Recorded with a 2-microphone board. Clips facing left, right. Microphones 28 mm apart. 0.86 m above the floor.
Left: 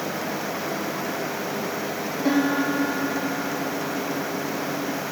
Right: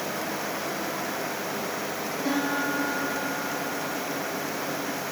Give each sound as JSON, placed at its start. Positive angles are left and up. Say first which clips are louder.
{"t": 2.2, "sound": "a piano", "louder": "left 5 dB", "side_deg": 20, "distance_m": 2.0}